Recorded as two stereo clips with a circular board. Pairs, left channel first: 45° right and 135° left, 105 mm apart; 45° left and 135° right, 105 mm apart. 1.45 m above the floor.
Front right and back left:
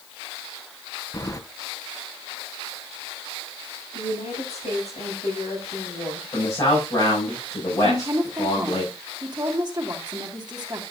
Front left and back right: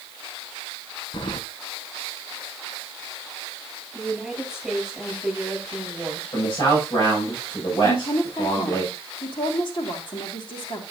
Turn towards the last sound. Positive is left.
turn(degrees=85)